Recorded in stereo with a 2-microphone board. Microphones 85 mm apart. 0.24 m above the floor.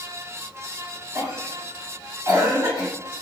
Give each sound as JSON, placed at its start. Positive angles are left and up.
{"t": 1.1, "sound": "a cough", "side_deg": -45, "distance_m": 1.5}